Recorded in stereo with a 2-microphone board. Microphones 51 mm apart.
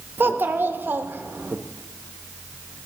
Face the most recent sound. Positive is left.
turn(degrees=-40)  # may be behind; listen again after turning